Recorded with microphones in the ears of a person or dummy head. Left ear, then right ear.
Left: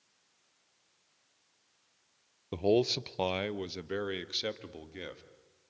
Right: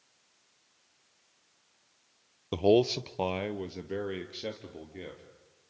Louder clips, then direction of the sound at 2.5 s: Right 4 dB; 15° right (ahead or behind).